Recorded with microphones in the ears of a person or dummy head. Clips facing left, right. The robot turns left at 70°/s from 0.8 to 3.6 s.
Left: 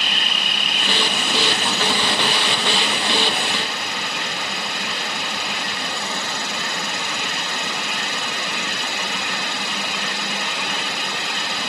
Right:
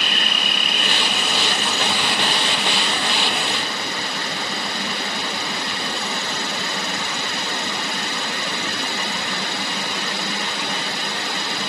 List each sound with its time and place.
0.0 s an insect: 40° right; by 11.7 s 125° left